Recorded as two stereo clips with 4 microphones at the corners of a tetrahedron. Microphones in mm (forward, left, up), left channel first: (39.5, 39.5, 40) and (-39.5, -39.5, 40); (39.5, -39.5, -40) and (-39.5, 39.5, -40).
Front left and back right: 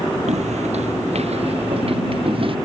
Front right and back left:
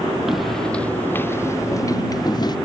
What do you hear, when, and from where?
0.3 s footsteps: 140° right; by 2.5 s 95° right